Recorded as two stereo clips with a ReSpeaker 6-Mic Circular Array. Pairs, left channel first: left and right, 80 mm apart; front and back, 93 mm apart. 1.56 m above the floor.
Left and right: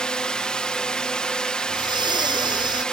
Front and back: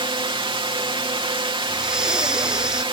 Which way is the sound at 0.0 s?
170° left.